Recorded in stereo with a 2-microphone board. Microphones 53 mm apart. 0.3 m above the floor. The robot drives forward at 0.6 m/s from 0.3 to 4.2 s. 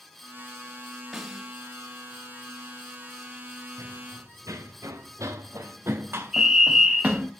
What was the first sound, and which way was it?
A snare drum, 10° right (ahead or behind).